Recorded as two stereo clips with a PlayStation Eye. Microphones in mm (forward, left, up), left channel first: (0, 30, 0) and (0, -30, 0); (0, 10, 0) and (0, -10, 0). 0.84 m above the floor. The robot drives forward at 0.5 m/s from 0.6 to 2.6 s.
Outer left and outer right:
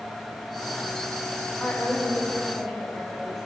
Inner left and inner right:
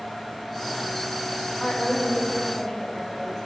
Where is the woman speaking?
5° left (ahead or behind), 1.1 m.